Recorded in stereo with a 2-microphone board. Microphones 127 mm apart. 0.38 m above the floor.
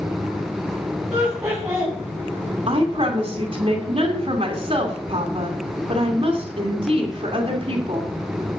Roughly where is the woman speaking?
Right.